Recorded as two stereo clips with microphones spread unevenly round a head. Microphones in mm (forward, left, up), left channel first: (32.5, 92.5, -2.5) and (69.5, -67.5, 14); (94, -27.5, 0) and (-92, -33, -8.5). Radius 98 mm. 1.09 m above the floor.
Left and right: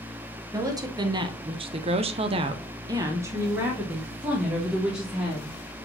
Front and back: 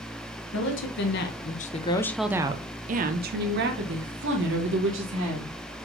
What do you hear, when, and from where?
0.5 s a woman speaking: 5° right, 1.0 m; by 5.5 s 165° right, 2.0 m